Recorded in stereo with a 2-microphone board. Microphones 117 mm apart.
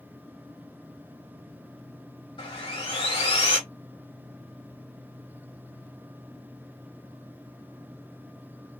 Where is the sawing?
50° left (ahead or behind), 1.9 m.